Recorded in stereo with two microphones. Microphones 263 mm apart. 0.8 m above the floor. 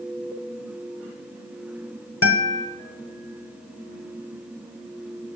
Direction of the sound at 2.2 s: 55° left (ahead or behind).